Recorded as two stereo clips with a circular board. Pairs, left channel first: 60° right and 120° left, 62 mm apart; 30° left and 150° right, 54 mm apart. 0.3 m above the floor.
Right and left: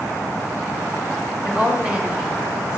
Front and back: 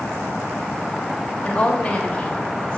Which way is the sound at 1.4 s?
70° left.